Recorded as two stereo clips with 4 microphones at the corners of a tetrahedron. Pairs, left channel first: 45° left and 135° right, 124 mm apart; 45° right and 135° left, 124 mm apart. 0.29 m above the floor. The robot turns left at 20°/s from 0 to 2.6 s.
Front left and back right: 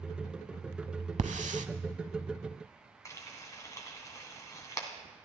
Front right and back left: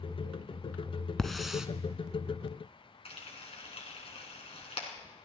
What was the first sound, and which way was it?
A hiss, 130° right.